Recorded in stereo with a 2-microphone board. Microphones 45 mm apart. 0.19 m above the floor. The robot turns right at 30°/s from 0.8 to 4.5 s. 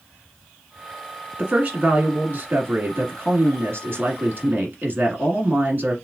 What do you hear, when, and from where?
1.4 s a woman speaking: 150° right, 1.7 m; by 6.0 s 55° right, 1.7 m